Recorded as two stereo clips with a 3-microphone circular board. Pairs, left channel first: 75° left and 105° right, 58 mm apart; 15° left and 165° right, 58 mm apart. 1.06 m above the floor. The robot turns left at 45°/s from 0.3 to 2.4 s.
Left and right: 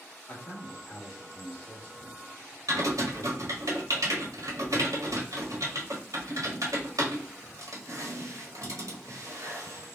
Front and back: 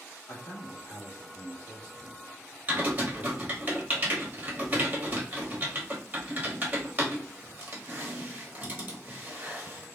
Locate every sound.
0.3 s a man speaking: 20° left, 1.3 m; by 3.7 s 75° right, 1.3 m
2.7 s typing on a keyboard: 110° right, 1.1 m